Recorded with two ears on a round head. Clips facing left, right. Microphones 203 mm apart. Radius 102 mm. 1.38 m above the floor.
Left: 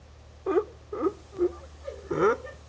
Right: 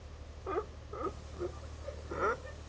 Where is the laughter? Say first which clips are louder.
Left 12 dB; 65° left (ahead or behind); by 2.6 s 70° left (ahead or behind).